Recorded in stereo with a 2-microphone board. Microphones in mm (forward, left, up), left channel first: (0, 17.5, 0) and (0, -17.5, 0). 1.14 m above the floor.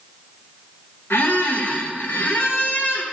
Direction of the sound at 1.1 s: 60° left (ahead or behind).